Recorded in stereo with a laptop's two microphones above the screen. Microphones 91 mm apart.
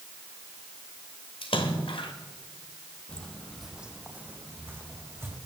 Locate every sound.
1.4 s a splash: 75° left (ahead or behind), 1.7 m
3.1 s footsteps: 15° left (ahead or behind), 2 m; by 5.4 s 30° right (ahead or behind), 4.5 m